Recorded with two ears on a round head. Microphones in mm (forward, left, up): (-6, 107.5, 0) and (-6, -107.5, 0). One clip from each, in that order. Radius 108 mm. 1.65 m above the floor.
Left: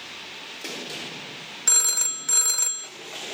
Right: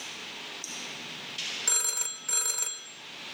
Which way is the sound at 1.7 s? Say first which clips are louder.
Left 10 dB; 10° left (ahead or behind).